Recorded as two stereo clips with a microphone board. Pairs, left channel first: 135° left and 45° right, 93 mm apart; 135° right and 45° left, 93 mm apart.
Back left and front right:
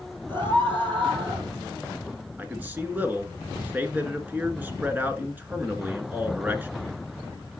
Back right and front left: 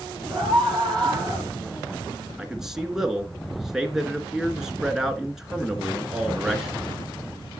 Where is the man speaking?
30° right, 1.2 m.